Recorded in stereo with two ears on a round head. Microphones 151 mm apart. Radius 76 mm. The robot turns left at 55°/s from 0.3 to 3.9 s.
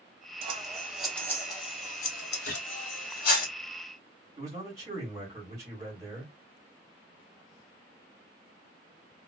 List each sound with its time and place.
0.4 s scissors: 35° right (ahead or behind), 1.0 m; by 3.5 s 45° left (ahead or behind), 1.0 m
2.5 s a gunshot: 55° left (ahead or behind), 0.9 m; by 2.7 s 65° left (ahead or behind), 0.9 m
4.4 s a man speaking: 20° right (ahead or behind), 1.7 m